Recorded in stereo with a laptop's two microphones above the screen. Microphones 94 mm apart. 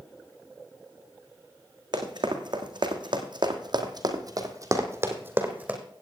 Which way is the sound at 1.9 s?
55° right (ahead or behind).